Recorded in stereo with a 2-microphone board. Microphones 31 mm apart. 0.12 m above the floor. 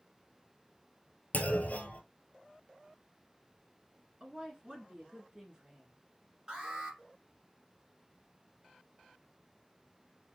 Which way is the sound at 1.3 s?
60° left (ahead or behind).